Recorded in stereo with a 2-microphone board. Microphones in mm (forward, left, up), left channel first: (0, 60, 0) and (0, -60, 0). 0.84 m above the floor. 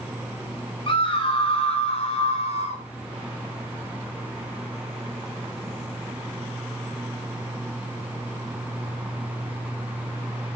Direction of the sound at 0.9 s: 45° left (ahead or behind).